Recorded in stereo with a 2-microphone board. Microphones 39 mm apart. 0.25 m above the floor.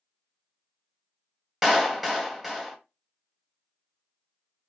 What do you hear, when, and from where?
1.6 s a clap: centre (ahead or behind), 0.7 m